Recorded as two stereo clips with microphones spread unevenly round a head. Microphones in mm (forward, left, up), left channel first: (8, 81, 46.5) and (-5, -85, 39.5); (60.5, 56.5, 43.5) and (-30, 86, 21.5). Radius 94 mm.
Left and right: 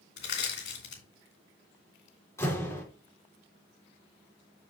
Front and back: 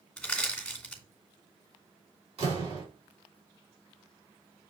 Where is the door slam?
160° left, 3.5 m.